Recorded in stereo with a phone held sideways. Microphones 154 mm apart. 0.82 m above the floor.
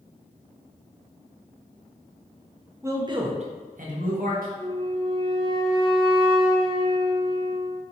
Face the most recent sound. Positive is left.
turn(degrees=-35)  # may be behind; listen again after turning